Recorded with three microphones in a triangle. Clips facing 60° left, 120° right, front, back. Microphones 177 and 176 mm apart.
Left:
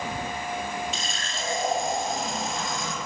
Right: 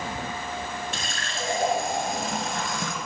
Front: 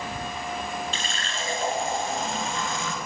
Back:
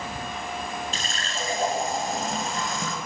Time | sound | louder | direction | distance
0.9 | a running tap | right 1 dB, even | 135° right | 1.7 m